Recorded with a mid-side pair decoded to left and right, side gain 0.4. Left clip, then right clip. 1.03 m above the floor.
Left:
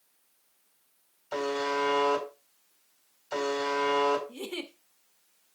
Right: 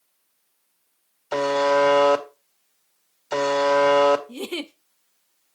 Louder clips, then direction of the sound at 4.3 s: Right 7 dB; 60° right.